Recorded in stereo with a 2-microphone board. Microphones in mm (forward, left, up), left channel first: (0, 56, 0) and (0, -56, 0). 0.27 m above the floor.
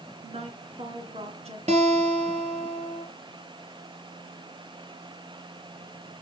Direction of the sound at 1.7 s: 75° right (ahead or behind).